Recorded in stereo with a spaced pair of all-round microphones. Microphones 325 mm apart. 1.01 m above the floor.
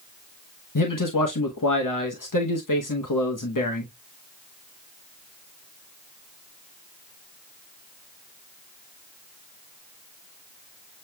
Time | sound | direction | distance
0.8 | a man speaking | 70° left (ahead or behind) | 1.0 m